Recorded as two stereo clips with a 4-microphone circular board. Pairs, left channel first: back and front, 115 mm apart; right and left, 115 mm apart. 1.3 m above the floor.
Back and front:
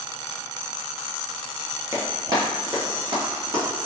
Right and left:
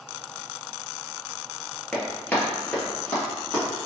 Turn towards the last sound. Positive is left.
turn(degrees=-20)